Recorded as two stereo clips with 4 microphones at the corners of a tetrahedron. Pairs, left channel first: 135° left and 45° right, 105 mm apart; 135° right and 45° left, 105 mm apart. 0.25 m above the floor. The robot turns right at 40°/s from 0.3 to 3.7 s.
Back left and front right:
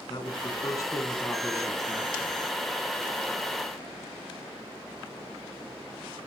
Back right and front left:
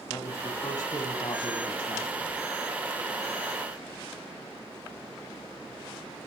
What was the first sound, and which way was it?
A man speaking, 165° left.